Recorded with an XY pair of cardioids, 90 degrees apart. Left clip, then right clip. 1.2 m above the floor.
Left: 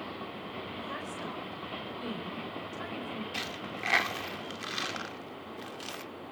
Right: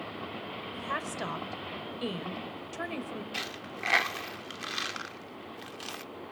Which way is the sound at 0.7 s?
70° right.